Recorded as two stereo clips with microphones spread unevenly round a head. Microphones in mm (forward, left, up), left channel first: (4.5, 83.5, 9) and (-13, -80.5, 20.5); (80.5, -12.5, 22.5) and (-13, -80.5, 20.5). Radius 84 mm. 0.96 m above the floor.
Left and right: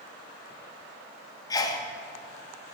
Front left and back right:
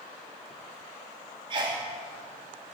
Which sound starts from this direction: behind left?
A sneeze, at 1.5 s.